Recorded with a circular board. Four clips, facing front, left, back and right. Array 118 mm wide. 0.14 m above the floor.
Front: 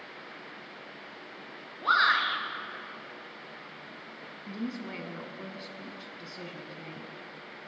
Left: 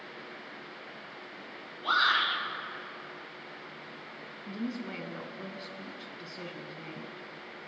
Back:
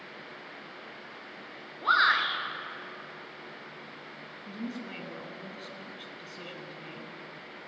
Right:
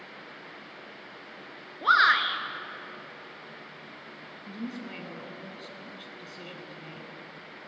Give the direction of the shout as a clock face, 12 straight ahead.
3 o'clock.